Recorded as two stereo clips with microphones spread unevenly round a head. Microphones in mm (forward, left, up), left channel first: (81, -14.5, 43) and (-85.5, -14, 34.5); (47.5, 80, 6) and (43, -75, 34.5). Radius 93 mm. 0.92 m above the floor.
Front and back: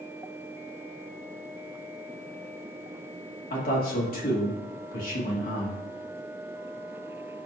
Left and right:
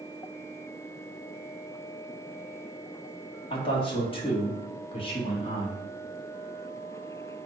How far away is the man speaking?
About 2 m.